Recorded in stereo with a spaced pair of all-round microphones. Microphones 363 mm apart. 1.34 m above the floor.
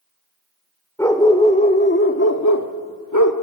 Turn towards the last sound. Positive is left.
turn(degrees=55)  # may be behind; listen again after turning